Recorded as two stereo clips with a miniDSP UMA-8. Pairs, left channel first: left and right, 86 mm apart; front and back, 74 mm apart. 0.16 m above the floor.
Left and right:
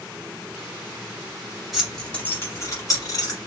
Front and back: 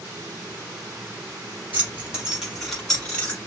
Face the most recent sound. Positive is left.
turn(degrees=70)